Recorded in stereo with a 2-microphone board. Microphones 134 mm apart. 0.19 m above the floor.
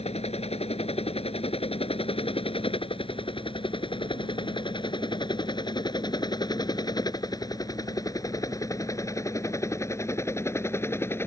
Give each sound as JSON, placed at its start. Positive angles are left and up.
{"t": 0.0, "sound": "a helicopter", "side_deg": 50}